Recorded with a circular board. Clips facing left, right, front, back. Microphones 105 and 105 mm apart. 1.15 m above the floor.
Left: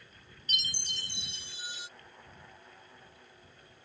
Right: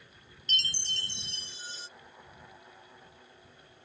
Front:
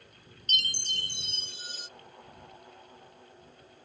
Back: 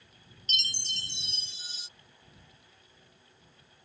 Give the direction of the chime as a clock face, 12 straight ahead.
11 o'clock.